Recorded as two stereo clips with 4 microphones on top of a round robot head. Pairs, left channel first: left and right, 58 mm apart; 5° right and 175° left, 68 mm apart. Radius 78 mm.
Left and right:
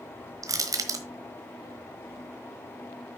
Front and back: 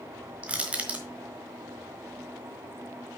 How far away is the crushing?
About 1.3 m.